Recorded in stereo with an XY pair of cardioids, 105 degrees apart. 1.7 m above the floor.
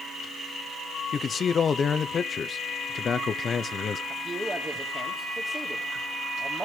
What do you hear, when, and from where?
1.1 s a man speaking: 45° left, 0.8 m
4.1 s a man speaking: 25° right, 2.5 m